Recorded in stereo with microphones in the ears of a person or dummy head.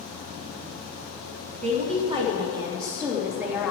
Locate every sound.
1.6 s a woman speaking: 40° right (ahead or behind), 2.5 m; by 3.7 s centre (ahead or behind), 1.9 m